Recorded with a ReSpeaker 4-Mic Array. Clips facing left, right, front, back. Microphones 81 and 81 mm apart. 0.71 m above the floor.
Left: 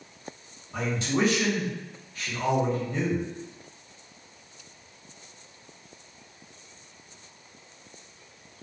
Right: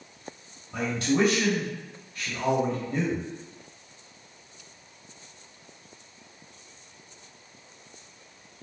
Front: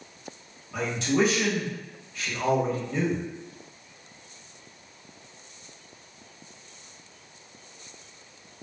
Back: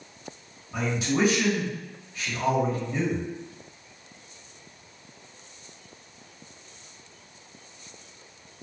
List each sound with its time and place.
0.7 s a man speaking: 100° right, 1.6 m